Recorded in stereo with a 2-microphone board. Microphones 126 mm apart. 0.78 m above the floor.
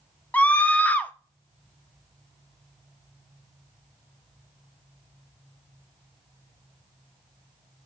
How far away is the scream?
About 0.6 m.